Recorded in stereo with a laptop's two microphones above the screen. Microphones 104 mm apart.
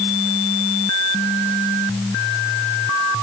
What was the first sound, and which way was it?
Only background noise.